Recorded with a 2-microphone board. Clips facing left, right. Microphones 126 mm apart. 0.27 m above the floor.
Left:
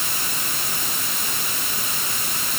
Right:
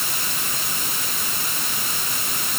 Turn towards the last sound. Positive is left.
No sound to turn to.